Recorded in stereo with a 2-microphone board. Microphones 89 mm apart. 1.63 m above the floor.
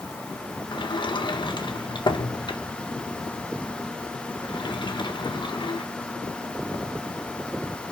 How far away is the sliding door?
About 1.5 m.